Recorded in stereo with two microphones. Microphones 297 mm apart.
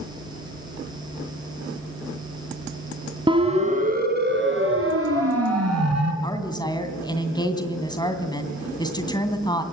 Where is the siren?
15° right (ahead or behind), 3.5 m; by 6.1 s 65° right (ahead or behind), 5 m.